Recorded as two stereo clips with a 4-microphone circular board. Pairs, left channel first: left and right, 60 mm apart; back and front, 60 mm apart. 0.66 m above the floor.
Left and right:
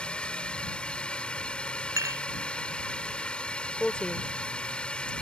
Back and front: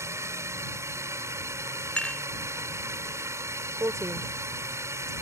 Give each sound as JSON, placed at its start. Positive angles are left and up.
{"t": 0.0, "sound": "a drone", "azimuth_deg": 20}
{"t": 2.0, "sound": "dishes clattering", "azimuth_deg": -110}
{"t": 3.8, "sound": "a woman speaking", "azimuth_deg": 20}